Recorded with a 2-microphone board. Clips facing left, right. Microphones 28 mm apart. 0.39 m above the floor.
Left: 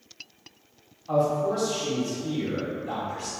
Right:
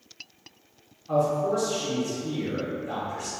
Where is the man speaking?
45° left (ahead or behind), 1.7 m.